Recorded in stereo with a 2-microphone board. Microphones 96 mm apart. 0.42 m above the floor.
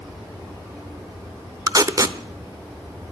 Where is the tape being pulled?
35° right (ahead or behind), 0.7 m.